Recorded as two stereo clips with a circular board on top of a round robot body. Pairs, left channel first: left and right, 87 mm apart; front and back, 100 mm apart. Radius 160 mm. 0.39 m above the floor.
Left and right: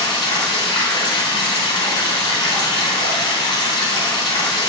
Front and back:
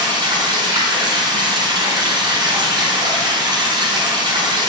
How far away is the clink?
I don't hear a clink.